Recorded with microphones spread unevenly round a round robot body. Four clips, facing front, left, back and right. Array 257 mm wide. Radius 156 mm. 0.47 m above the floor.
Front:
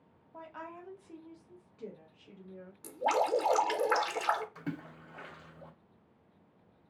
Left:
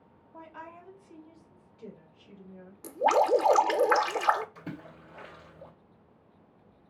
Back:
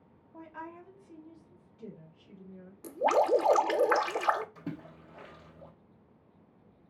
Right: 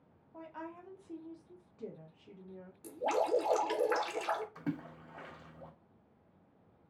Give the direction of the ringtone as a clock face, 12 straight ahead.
No ringtone in this recording.